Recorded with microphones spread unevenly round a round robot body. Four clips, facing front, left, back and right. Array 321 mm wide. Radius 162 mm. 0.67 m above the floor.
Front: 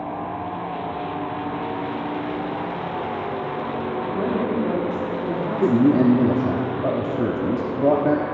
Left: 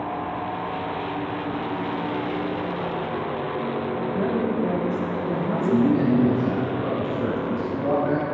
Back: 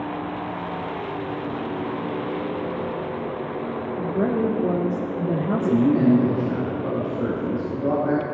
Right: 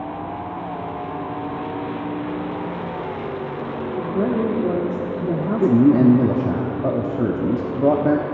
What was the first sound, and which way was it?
A woman speaking, 120° right.